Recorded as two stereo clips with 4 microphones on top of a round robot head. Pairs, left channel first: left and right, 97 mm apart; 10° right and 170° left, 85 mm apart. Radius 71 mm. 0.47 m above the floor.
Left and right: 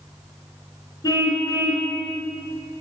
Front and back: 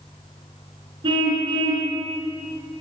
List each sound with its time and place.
1.0 s a car horn: 145° left, 4 m